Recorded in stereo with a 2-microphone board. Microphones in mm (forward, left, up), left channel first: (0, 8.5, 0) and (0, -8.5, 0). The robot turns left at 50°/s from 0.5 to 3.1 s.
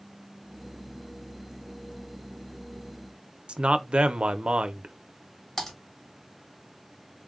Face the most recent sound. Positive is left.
turn(degrees=20)  # may be behind; listen again after turning